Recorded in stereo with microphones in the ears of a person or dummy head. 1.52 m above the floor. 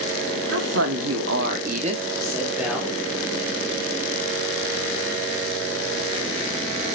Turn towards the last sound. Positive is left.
turn(degrees=0)  # may be behind; listen again after turning